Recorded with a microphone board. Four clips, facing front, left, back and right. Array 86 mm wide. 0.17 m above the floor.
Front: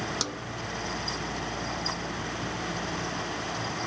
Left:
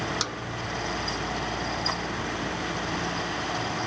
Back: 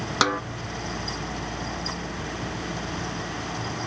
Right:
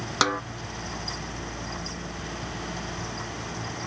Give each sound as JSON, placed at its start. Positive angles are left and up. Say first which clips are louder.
{"t": 0.2, "sound": "a snare drum", "louder": "right 9 dB, back 12 dB", "azimuth_deg": -145}